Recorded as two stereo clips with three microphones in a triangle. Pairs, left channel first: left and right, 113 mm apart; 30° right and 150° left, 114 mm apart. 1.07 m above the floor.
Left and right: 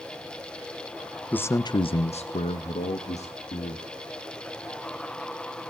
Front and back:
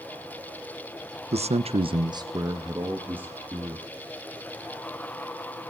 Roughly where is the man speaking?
Behind.